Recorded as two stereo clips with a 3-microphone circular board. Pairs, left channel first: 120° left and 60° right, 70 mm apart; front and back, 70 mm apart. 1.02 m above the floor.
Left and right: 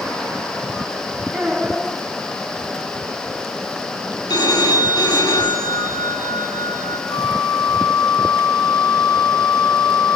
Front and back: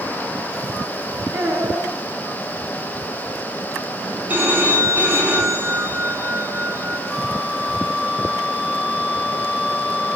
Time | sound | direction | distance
1.3 | a child speaking | 150° right | 6.5 m
4.3 | a phone ringing | 115° left | 8.5 m
7.1 | a flute | 100° left | 7 m